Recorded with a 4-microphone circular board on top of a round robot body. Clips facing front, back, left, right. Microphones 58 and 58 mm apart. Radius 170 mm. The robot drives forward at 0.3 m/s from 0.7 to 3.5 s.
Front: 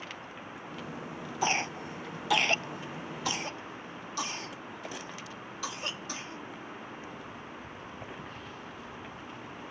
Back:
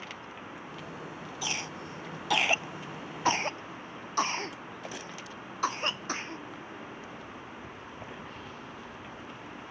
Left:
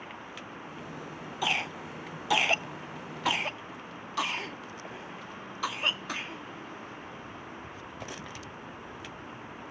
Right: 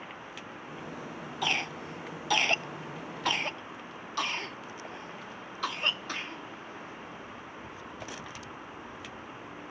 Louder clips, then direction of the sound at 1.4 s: Front 8 dB, left 1 dB; 5° left.